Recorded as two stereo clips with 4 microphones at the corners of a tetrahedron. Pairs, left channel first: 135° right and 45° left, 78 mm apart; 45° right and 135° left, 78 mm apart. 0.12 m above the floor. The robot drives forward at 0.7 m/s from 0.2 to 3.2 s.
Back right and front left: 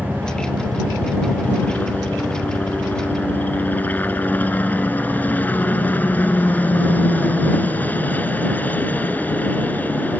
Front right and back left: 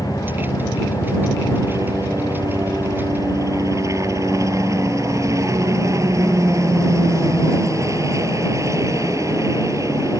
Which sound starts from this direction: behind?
A helicopter, at 0.0 s.